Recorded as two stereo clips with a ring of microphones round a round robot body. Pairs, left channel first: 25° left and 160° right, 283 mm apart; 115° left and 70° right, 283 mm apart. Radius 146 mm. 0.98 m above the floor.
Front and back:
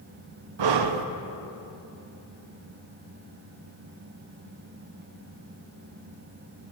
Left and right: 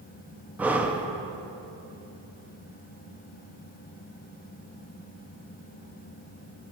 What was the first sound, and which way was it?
Breathing, 155° right.